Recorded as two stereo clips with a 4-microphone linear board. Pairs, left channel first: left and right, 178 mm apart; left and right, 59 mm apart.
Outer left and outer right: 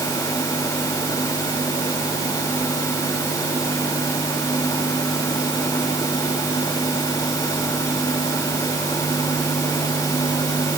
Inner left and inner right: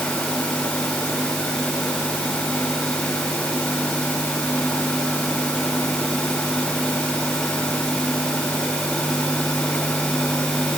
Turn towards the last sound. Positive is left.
No sound to turn to.